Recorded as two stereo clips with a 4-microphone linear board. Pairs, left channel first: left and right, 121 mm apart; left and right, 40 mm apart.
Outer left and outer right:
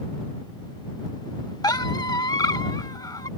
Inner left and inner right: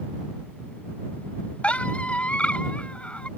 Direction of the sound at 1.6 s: 35° left (ahead or behind).